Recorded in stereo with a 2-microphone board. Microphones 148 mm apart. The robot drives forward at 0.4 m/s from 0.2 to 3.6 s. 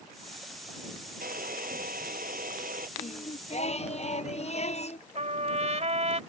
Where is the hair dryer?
75° right (ahead or behind); by 2.9 s 70° right (ahead or behind).